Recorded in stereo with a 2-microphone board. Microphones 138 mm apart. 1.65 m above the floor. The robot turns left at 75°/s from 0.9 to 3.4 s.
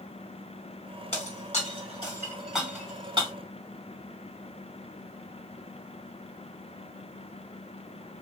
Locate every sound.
1.1 s breaking glass: 50° left (ahead or behind), 2 m; by 3.3 s 40° right (ahead or behind), 2 m